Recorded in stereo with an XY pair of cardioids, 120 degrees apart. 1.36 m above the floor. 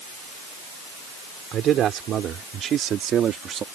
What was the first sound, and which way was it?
A man speaking, 60° right.